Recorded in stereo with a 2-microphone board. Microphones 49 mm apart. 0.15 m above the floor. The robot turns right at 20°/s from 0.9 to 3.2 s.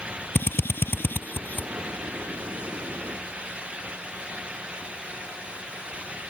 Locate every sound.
0.3 s a drill: 45° left (ahead or behind); by 1.7 s 35° left (ahead or behind)